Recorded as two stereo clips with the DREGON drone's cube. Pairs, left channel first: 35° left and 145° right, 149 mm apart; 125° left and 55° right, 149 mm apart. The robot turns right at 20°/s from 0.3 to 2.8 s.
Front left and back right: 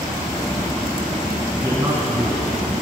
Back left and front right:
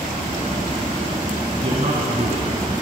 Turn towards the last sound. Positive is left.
turn(degrees=-65)